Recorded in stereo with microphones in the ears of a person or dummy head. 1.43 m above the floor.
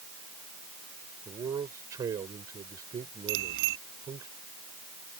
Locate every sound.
1.2 s a man speaking: 20° right (ahead or behind)
3.3 s a bicycle bell: 70° right (ahead or behind)